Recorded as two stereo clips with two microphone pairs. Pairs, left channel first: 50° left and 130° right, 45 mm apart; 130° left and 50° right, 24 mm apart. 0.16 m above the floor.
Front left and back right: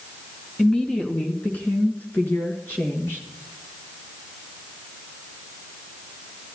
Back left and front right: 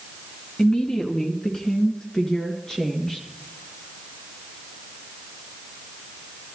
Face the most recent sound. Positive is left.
turn(degrees=70)